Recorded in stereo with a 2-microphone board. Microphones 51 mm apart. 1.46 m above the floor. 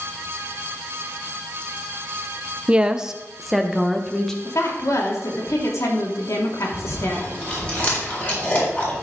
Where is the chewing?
30° left (ahead or behind), 4 m.